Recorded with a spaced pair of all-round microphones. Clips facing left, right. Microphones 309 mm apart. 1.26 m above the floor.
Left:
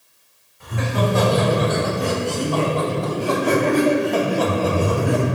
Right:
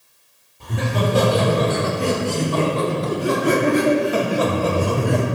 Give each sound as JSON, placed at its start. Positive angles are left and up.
{"t": 0.6, "sound": "laughter", "side_deg": -45, "distance_m": 5.0}